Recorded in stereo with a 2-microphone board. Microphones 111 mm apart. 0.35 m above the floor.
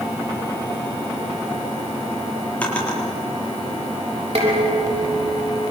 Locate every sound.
2.6 s a drawer: 10° left (ahead or behind), 6 m
4.3 s dishes clattering: 75° right (ahead or behind), 7 m